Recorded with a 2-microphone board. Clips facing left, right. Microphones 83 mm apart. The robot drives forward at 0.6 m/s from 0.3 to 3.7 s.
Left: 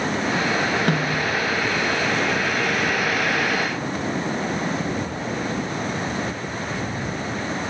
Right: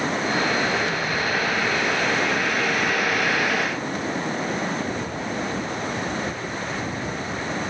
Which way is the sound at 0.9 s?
60° left (ahead or behind).